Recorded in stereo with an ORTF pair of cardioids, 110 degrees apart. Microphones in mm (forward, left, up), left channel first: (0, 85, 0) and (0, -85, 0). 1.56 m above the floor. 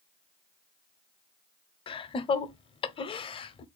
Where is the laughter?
30° left, 0.6 m.